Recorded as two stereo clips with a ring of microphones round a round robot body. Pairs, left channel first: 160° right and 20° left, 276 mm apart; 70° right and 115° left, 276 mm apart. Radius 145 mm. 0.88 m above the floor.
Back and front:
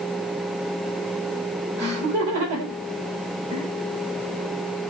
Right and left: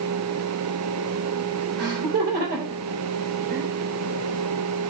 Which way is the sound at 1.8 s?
55° left.